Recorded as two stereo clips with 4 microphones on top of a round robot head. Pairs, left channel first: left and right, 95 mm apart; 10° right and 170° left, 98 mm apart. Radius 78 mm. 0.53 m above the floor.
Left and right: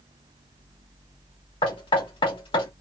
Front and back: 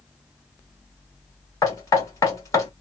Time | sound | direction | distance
1.6 | knocking | 50° left | 1.7 m